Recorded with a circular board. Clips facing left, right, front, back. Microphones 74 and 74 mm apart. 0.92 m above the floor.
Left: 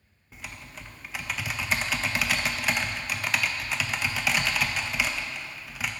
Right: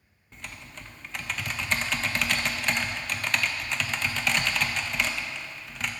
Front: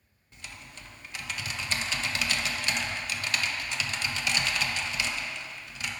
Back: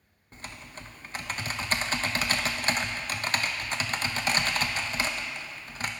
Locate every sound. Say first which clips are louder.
0.3 s typing on a keyboard: left 1 dB, back 4 dB; 175° left, 0.5 m